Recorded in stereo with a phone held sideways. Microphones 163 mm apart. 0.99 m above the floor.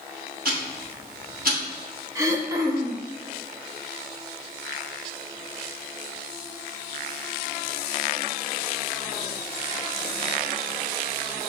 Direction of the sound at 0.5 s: 70° right (ahead or behind).